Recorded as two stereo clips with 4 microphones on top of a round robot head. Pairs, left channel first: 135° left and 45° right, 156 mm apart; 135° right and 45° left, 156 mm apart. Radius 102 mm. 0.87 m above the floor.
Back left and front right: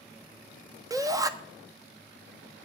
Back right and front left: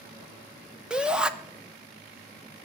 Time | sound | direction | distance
0.9 | a shout | 30° right | 0.9 m